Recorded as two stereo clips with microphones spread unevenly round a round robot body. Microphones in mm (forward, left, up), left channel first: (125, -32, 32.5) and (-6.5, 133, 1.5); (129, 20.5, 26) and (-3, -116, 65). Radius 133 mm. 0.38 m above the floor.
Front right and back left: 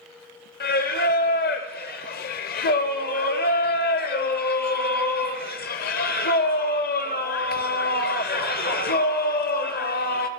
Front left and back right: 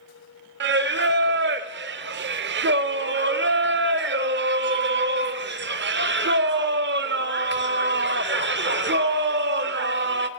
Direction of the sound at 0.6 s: 105° right.